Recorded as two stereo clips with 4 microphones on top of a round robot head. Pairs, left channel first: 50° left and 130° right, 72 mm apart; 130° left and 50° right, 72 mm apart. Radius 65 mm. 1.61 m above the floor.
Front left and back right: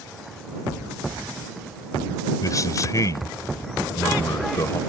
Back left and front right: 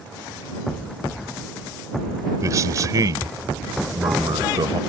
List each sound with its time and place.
2.4 s a man speaking: straight ahead; by 4.8 s 10° right